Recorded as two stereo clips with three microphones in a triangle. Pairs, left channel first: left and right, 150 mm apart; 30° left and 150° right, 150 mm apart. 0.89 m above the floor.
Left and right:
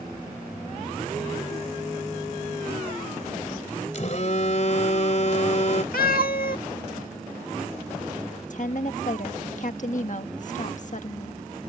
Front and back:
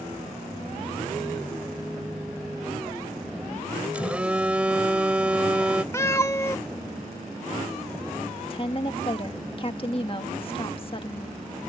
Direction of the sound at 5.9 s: 100° left.